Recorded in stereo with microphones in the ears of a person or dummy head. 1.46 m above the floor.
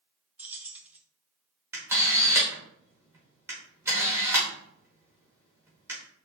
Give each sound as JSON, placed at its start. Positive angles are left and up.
{"t": 0.4, "sound": "keys jangling", "side_deg": -10, "distance_m": 0.6}
{"t": 1.7, "sound": "a camera shutter", "side_deg": -10, "distance_m": 1.4}